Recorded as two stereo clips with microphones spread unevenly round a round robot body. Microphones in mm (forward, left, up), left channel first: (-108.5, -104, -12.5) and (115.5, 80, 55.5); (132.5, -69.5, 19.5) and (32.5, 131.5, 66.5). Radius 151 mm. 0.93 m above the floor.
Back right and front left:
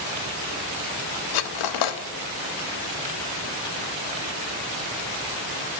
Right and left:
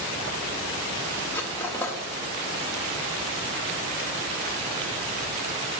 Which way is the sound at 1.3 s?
145° right.